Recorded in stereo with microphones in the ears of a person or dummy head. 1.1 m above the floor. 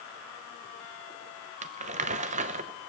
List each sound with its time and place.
1.6 s crumpling: 40° right (ahead or behind), 0.7 m